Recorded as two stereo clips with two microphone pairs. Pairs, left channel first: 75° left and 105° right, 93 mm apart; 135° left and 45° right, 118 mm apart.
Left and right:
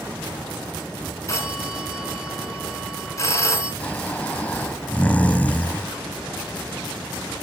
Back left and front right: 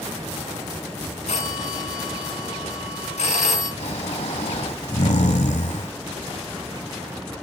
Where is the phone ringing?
130° left, 3 m.